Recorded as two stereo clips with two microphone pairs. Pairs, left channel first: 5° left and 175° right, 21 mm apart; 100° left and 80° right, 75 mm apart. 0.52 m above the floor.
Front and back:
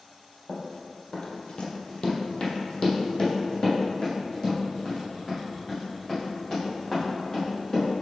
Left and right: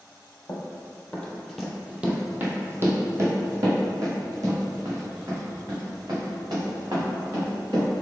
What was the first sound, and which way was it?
Running footsteps, 50° left.